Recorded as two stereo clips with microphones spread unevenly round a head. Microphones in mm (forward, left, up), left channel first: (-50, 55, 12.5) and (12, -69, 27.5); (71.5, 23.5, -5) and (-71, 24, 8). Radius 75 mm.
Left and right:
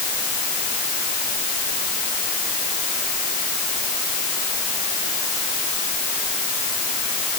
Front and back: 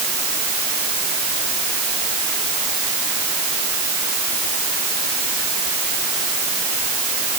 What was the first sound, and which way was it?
Only background noise.